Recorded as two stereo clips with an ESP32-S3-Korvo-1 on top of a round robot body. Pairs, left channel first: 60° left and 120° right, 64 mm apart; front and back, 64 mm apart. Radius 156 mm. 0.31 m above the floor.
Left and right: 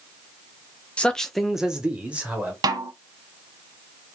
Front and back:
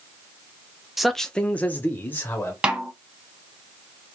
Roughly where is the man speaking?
Left.